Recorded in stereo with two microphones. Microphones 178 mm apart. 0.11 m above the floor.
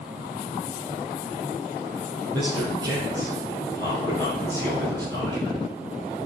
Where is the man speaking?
20° right (ahead or behind), 2 m.